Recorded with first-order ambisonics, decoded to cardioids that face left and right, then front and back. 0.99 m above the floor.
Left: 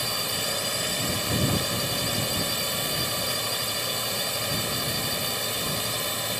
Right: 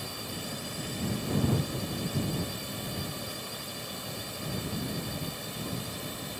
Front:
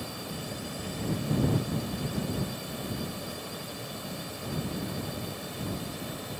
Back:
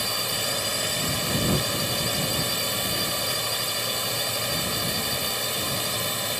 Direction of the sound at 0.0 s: 140° left.